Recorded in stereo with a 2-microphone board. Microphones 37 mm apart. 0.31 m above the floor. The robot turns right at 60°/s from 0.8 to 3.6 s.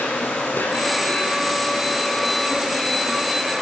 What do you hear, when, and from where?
0.0 s an insect: 85° left, 1.0 m; by 3.6 s 110° right, 1.0 m